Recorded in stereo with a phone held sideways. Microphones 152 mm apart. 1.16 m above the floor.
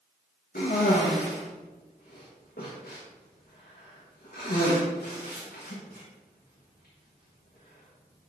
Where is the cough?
75° left (ahead or behind), 1.3 m.